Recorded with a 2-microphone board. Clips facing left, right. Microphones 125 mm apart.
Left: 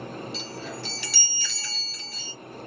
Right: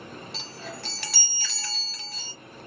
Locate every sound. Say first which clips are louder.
0.3 s a chime: left 4 dB; 65° right (ahead or behind), 1.3 m